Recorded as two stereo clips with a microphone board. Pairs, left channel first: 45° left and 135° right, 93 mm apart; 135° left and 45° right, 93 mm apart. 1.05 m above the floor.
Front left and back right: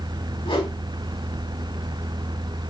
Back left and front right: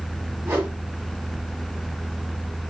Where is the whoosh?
30° left, 3.5 m.